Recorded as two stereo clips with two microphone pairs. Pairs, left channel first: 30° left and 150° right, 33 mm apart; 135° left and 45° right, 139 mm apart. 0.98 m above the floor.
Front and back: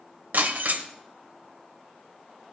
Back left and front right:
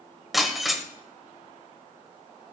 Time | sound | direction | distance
0.3 | breaking glass | 135° right | 1.5 m